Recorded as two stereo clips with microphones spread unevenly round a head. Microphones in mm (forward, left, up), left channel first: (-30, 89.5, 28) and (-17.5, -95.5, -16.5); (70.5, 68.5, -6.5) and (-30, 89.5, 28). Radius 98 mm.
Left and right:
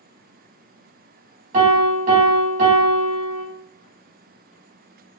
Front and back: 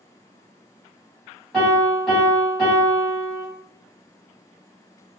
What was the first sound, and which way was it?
A piano, 125° right.